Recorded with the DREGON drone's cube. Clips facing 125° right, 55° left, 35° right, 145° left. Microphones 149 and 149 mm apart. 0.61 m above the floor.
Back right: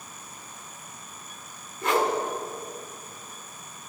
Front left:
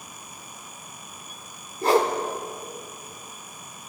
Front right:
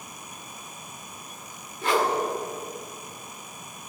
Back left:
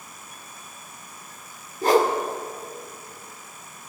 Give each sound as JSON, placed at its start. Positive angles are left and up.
{"t": 1.8, "sound": "a whoosh", "azimuth_deg": 105, "distance_m": 1.5}